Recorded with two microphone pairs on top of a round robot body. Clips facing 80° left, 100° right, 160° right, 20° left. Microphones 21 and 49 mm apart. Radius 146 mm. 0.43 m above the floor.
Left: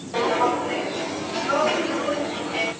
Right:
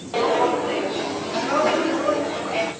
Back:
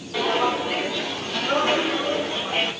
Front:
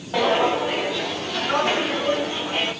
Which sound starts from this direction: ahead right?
Footsteps, at 0.1 s.